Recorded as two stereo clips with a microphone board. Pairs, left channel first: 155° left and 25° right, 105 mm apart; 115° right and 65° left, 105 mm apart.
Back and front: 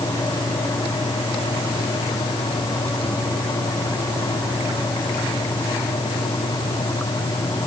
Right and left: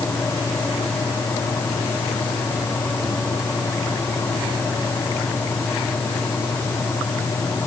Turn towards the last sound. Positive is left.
No sound to turn to.